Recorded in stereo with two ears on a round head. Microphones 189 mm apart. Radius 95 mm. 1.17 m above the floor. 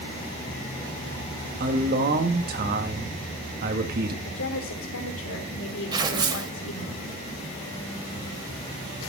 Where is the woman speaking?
70° left (ahead or behind), 3.5 m.